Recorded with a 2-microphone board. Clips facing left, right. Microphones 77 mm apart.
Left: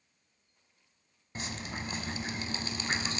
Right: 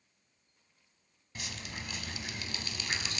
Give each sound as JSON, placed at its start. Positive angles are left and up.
{"t": 1.4, "sound": "dripping", "side_deg": 30, "distance_m": 0.8}